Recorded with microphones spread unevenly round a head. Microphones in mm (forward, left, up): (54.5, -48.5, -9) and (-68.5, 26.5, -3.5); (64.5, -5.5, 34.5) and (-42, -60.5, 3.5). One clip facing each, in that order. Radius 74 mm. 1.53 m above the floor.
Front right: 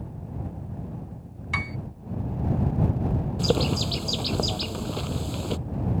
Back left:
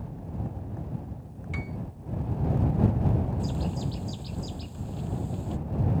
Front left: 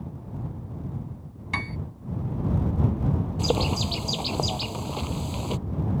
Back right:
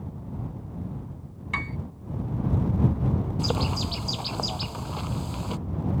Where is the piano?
20° right.